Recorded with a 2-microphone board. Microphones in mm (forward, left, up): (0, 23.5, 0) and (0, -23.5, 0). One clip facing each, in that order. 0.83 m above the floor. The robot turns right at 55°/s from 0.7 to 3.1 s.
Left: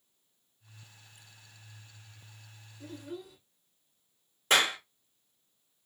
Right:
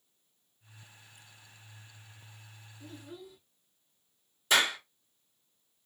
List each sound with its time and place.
2.8 s a child speaking: 85° left, 1.5 m; by 3.4 s 75° left (ahead or behind), 1.5 m
4.5 s a clap: 45° left (ahead or behind), 1.6 m